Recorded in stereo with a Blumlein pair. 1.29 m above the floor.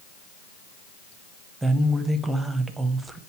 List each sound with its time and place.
1.6 s a woman speaking: 5° right, 0.8 m